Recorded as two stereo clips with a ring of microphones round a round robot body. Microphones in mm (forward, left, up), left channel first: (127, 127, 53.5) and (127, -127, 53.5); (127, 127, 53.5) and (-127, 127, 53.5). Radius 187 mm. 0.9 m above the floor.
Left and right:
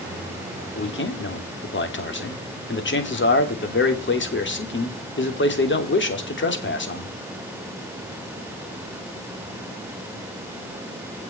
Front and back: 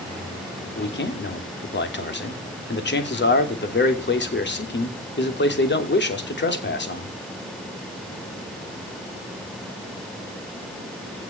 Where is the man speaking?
45° left, 3 m.